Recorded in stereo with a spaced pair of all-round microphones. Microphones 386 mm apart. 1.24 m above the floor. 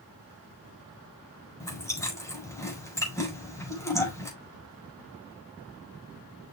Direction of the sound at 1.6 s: 10° left (ahead or behind).